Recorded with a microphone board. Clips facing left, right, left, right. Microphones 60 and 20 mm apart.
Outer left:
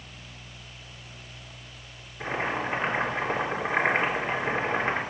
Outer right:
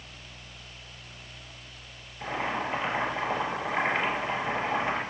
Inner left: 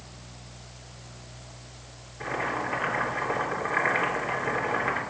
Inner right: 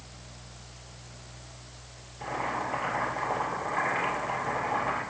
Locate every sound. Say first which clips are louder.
2.2 s boiling: outer left 2 dB, inner left 2 dB; 40° left (ahead or behind), 2.5 m